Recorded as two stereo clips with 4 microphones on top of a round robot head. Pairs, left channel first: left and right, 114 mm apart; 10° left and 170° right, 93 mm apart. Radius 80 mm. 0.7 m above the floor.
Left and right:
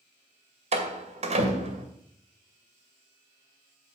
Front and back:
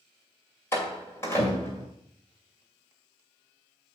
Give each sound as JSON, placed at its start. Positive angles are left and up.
{"t": 0.7, "sound": "a door slam", "azimuth_deg": -60, "distance_m": 2.0}